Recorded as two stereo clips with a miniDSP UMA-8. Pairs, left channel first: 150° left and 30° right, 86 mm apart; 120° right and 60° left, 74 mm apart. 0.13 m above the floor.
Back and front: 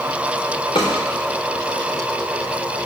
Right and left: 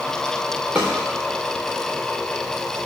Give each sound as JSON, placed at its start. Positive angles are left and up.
{"t": 0.8, "sound": "a drawer", "azimuth_deg": 135, "distance_m": 3.0}